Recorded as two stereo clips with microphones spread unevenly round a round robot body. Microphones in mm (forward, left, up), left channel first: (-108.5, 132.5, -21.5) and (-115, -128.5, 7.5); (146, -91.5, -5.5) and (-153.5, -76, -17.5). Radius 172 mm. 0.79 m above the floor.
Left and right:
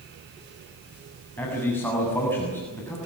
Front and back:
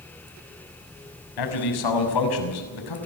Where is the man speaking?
5° left, 6.5 m.